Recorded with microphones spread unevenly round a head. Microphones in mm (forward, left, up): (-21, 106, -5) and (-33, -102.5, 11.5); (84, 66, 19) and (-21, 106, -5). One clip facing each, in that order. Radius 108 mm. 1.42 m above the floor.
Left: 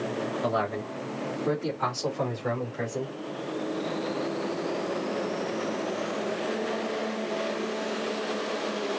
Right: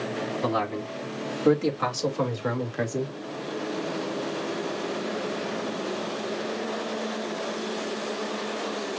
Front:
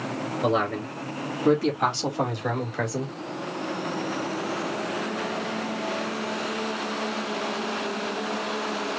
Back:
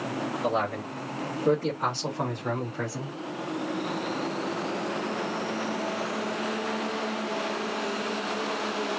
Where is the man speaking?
55° right, 4 m; by 3.2 s 75° right, 2 m.